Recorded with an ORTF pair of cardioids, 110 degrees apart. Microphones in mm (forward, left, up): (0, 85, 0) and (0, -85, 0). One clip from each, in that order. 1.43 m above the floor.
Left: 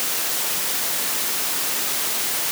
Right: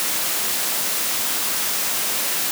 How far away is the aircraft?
I don't hear an aircraft.